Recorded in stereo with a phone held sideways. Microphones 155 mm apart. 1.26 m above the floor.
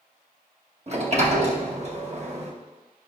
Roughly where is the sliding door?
Right.